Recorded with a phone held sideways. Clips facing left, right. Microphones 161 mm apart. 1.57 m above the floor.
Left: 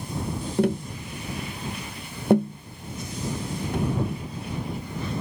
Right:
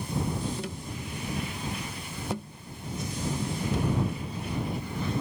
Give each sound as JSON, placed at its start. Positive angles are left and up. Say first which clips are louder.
{"t": 0.6, "sound": "tapping", "louder": "left 12 dB", "side_deg": 60}